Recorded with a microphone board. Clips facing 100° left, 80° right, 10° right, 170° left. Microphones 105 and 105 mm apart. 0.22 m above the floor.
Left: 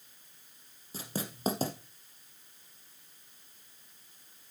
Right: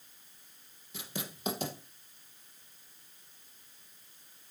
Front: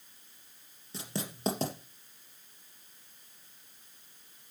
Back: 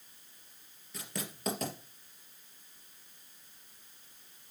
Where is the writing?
50° left, 3 m.